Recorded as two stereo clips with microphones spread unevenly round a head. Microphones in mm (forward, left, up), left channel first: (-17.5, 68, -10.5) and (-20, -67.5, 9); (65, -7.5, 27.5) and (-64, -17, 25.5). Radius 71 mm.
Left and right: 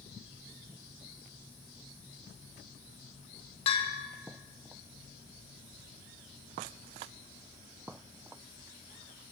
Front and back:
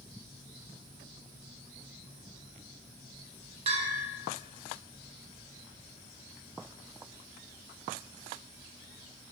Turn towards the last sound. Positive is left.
turn(degrees=135)